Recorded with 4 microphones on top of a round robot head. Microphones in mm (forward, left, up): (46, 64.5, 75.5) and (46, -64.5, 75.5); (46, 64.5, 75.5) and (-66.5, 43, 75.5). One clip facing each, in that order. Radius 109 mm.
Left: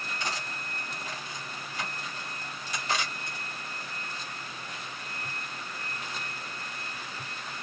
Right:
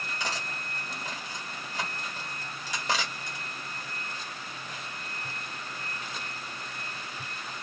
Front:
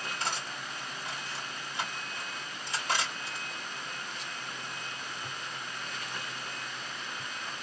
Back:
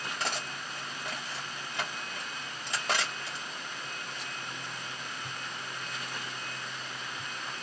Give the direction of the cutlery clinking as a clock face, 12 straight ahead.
4 o'clock.